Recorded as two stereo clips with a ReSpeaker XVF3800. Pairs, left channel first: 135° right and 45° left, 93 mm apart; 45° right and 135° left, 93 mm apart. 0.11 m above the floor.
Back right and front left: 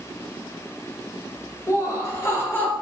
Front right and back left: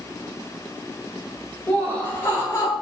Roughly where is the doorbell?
I don't hear a doorbell.